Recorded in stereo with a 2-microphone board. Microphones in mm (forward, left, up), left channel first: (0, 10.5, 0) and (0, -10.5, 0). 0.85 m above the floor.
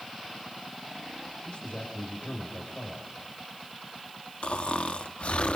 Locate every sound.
1.4 s a man speaking: 50° left (ahead or behind), 5 m
4.4 s snoring: 70° left (ahead or behind), 1.0 m